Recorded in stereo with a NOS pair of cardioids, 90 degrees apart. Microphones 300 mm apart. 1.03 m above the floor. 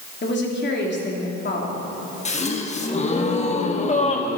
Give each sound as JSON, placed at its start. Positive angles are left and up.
{"t": 0.2, "sound": "a woman speaking", "azimuth_deg": 40, "distance_m": 3.0}
{"t": 2.2, "sound": "a gasp", "azimuth_deg": 25, "distance_m": 1.3}